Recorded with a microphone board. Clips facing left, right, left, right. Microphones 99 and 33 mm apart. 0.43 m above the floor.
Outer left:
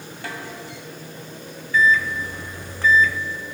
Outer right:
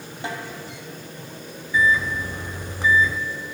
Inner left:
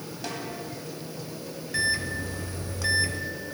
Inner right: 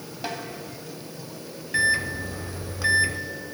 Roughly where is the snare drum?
Right.